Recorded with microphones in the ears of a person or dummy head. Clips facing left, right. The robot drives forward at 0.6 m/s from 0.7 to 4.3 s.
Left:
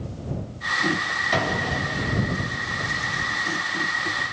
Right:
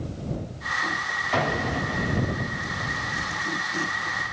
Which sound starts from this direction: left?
An explosion, at 1.3 s.